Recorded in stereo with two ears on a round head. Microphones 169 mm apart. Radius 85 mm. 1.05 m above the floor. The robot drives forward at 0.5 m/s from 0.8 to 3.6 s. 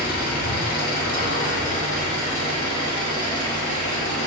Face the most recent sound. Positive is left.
turn(degrees=25)  # may be behind; listen again after turning